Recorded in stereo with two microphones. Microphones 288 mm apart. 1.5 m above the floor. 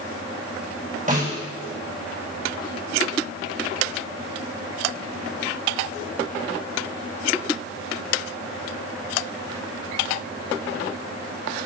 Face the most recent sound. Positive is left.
turn(degrees=-30)  # may be behind; listen again after turning